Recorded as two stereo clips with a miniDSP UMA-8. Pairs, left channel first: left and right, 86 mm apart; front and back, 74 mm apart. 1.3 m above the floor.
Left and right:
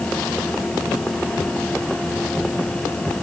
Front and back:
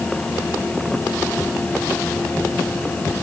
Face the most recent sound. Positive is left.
No sound to turn to.